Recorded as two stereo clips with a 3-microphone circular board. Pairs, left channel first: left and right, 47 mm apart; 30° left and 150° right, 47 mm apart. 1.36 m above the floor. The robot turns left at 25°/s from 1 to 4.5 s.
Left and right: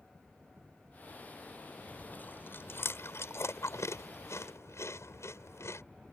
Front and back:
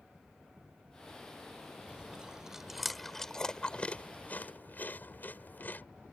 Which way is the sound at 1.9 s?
145° left.